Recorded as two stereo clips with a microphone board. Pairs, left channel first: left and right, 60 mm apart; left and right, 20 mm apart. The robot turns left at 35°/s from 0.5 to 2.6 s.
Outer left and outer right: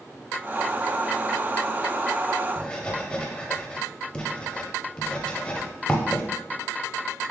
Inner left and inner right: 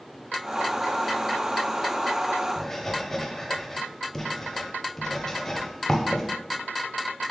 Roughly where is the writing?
Centre.